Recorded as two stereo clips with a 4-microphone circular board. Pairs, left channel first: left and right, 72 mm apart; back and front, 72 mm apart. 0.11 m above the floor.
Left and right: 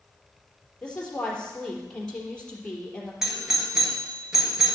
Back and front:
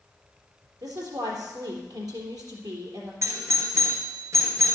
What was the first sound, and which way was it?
A woman speaking, 15° left.